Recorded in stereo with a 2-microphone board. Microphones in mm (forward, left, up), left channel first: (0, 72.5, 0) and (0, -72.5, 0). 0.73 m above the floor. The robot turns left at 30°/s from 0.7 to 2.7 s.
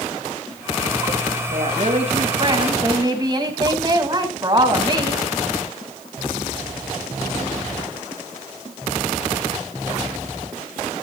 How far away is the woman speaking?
About 4.5 m.